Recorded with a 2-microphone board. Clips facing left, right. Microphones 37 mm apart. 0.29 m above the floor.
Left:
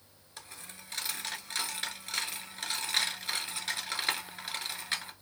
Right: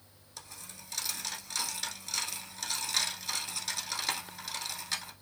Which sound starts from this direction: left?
A dropped coin, at 0.4 s.